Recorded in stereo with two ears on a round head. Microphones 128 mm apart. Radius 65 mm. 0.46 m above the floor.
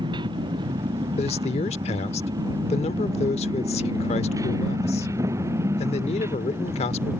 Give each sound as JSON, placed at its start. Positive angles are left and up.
{"t": 0.0, "sound": "a motorcycle", "side_deg": -35}
{"t": 1.2, "sound": "a man speaking", "side_deg": 45}